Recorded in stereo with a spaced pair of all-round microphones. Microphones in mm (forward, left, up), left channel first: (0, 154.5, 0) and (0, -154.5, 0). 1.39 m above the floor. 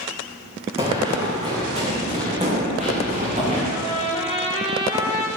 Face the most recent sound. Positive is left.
turn(degrees=-20)  # may be behind; listen again after turning